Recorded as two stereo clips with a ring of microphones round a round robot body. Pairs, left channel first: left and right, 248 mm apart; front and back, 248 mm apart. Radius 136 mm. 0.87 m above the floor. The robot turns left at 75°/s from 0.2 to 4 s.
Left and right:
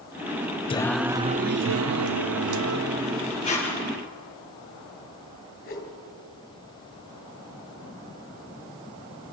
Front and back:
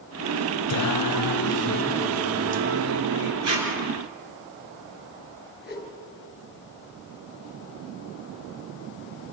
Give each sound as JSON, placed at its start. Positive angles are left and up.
{"t": 0.7, "sound": "singing", "azimuth_deg": 20, "distance_m": 0.6}
{"t": 3.4, "sound": "tape being pulled", "azimuth_deg": 165, "distance_m": 5.5}
{"t": 5.6, "sound": "a whoosh", "azimuth_deg": 50, "distance_m": 4.0}